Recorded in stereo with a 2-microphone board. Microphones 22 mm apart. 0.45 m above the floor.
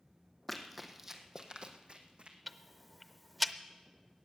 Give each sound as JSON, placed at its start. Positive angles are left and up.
{"t": 0.5, "sound": "running footsteps", "side_deg": 10, "distance_m": 1.5}
{"t": 2.5, "sound": "ticking", "side_deg": 0, "distance_m": 0.6}